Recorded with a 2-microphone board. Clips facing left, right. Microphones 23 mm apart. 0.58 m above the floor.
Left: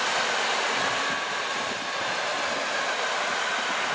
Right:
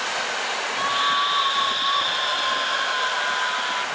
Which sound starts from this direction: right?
A scream, at 0.7 s.